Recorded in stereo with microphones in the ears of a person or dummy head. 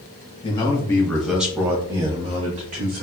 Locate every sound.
0.4 s a man speaking: 30° left (ahead or behind), 1.2 m; by 3.0 s 40° right (ahead or behind), 1.6 m